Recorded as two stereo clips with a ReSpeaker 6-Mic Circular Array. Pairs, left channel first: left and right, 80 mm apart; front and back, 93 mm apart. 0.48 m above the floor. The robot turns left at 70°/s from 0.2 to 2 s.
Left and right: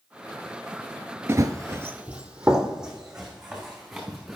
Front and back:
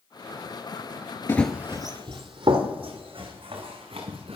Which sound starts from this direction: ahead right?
Running footsteps, at 1.3 s.